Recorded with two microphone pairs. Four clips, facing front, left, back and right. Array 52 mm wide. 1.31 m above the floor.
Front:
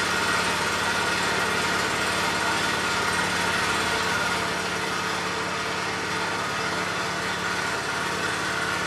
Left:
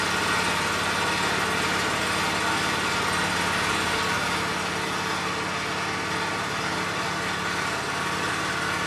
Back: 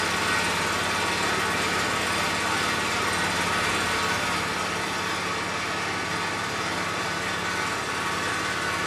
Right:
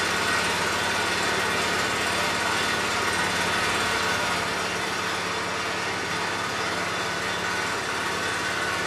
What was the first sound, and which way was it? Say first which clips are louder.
An engine running: even, front 1 dB; 65° right.